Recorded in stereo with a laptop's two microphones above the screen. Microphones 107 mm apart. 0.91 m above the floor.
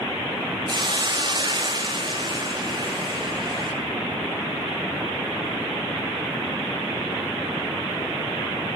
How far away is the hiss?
About 2 m.